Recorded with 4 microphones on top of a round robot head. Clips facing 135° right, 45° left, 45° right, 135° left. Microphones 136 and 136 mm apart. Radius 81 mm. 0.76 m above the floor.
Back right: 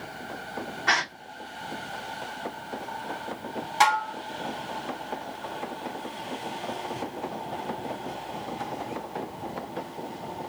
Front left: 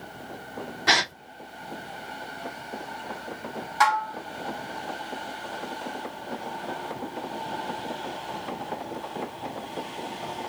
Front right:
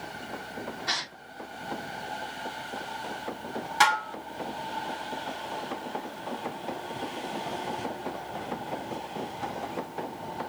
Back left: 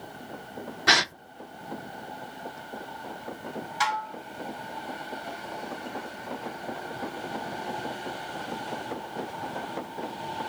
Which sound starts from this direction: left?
A gasp, at 0.9 s.